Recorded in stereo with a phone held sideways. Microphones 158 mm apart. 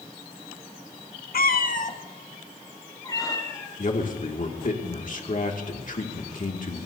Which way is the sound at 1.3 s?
65° left (ahead or behind).